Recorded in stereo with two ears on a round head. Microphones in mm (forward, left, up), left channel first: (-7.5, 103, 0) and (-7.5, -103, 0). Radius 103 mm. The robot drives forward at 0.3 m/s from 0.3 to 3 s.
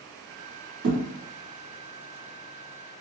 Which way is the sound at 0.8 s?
55° right (ahead or behind).